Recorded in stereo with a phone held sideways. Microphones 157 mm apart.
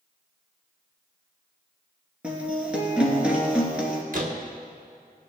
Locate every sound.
2.2 s a guitar: 5° right (ahead or behind), 2.5 m
4.1 s a door slam: 60° right (ahead or behind), 1.5 m